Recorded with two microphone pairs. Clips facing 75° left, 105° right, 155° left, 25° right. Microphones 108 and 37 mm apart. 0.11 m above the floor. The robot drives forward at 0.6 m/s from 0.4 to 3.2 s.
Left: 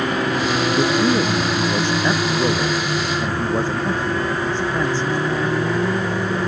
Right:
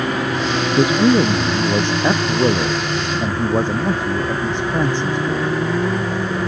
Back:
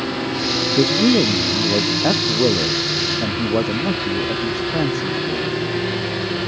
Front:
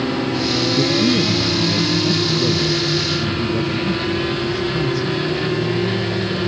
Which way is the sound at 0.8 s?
170° right.